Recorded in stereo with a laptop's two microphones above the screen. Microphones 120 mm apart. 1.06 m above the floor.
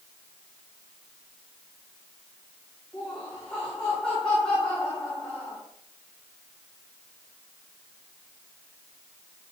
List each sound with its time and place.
2.9 s laughter: 5° left (ahead or behind), 5 m